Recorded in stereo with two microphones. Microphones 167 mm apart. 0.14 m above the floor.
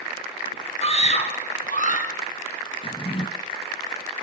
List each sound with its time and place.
0.8 s a scream: 35° left (ahead or behind), 4.5 m; by 2.1 s 50° left (ahead or behind), 5.5 m
2.8 s a drawer: 35° left (ahead or behind), 1.0 m